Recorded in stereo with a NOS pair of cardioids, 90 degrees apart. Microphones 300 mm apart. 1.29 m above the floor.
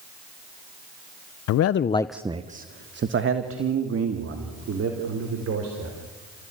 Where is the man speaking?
65° left, 0.7 m; by 6.4 s 55° right, 5 m.